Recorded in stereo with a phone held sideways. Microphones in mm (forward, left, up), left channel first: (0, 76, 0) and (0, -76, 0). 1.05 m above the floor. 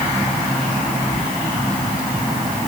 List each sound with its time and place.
Only background noise.